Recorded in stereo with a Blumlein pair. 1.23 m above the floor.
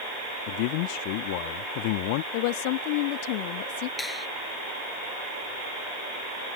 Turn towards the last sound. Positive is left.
turn(degrees=10)